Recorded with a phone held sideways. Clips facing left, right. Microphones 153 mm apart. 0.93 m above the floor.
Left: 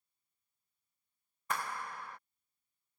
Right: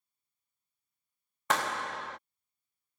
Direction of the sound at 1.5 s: 70° right (ahead or behind).